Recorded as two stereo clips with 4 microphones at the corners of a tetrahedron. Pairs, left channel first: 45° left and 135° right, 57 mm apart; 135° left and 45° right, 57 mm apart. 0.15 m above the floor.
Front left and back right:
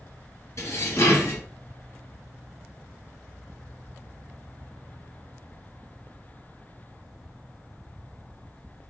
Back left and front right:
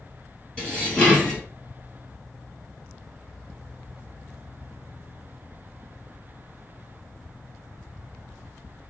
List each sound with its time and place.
0.6 s dishes clattering: 65° left, 1.7 m